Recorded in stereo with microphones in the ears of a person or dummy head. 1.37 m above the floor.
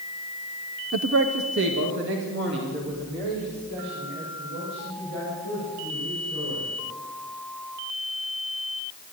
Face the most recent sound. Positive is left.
turn(degrees=-60)  # may be behind; listen again after turning